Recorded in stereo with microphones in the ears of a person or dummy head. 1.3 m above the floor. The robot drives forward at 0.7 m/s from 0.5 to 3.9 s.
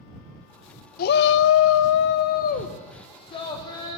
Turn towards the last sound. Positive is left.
turn(degrees=20)  # may be behind; listen again after turning